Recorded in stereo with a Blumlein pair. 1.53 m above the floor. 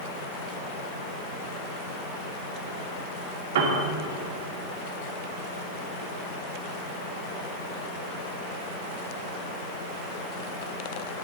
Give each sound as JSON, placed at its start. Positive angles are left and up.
{"t": 3.5, "sound": "a piano", "azimuth_deg": -60, "distance_m": 3.0}